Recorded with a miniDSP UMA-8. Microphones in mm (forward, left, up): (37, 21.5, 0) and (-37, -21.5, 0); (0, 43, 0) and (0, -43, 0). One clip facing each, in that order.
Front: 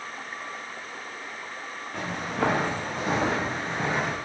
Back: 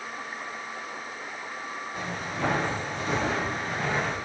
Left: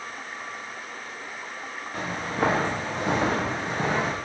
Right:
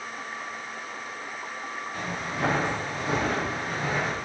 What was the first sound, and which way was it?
Footsteps, 45° left.